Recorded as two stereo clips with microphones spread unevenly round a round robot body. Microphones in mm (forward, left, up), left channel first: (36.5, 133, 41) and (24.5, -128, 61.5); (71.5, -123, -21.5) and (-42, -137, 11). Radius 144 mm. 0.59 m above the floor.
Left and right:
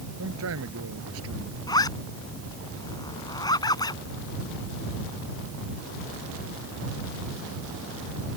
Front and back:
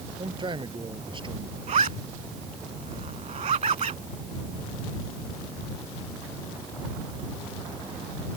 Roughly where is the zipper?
Behind.